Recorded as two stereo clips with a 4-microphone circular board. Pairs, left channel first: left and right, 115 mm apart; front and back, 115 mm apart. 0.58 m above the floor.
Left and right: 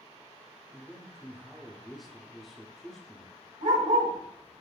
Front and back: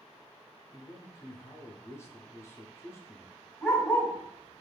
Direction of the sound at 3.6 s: 80° right.